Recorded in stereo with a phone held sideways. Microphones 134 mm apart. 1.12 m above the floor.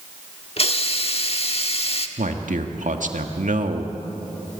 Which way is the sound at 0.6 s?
50° left (ahead or behind).